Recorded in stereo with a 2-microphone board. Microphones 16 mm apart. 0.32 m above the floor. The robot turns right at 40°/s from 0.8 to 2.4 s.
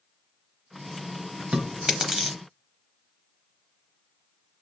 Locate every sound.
1.5 s chewing: 45° right (ahead or behind), 0.7 m; by 2.4 s 15° right (ahead or behind), 0.7 m